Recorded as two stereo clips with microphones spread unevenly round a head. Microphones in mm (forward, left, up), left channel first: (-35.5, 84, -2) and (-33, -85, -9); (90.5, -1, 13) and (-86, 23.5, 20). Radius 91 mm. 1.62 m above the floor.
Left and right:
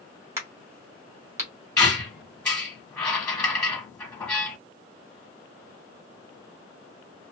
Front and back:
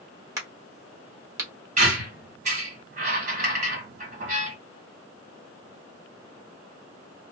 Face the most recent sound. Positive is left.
turn(degrees=160)